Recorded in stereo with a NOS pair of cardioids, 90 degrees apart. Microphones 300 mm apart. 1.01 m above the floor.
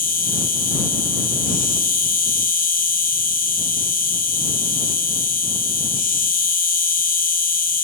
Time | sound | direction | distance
0.0 | an insect | 30° left | ?